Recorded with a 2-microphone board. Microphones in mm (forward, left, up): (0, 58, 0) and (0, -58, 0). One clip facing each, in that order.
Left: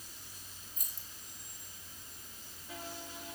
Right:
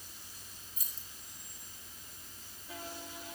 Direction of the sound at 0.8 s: 50° left (ahead or behind).